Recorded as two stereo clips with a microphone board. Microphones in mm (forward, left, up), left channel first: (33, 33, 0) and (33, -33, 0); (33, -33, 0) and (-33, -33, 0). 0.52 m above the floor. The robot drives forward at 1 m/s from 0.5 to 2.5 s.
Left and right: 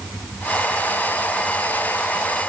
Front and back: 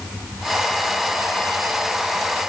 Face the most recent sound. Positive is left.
No sound to turn to.